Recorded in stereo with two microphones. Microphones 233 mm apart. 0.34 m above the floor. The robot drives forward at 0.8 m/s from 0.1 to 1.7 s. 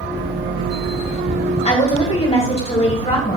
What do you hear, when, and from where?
1.6 s a woman speaking: 30° left (ahead or behind), 2.0 m; by 3.4 s 25° left (ahead or behind), 2.0 m